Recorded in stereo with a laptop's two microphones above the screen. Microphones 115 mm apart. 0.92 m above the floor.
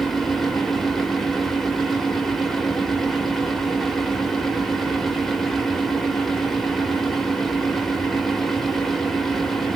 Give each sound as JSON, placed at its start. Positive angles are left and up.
{"t": 0.0, "sound": "a fan", "side_deg": 0, "distance_m": 0.8}